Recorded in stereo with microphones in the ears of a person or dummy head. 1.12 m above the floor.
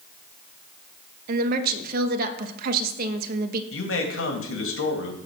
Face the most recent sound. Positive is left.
turn(degrees=70)  # may be behind; listen again after turning